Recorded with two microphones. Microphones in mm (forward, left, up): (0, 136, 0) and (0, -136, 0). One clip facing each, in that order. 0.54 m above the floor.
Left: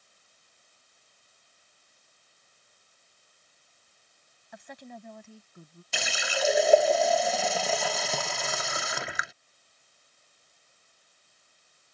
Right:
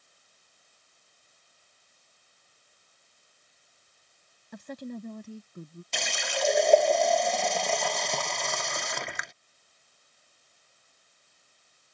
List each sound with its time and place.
4.5 s a woman speaking: 50° right (ahead or behind); by 5.8 s 40° right (ahead or behind)
5.9 s a running tap: 5° left (ahead or behind)